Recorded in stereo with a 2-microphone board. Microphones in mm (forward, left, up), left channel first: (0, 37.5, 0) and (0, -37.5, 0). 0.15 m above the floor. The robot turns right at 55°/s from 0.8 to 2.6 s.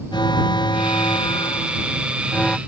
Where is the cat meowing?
I don't hear a cat meowing.